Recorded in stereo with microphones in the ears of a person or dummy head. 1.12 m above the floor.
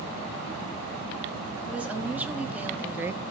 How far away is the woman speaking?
About 2.5 m.